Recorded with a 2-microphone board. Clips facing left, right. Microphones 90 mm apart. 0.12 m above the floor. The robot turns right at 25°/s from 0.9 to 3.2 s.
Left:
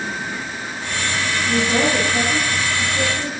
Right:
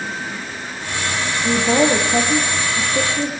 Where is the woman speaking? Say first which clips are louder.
Right 4 dB; 100° right, 4.5 m; by 3.3 s 55° right, 4.5 m.